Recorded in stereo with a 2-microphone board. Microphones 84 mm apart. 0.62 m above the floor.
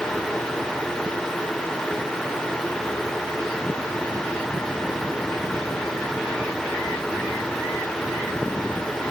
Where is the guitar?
I don't hear a guitar.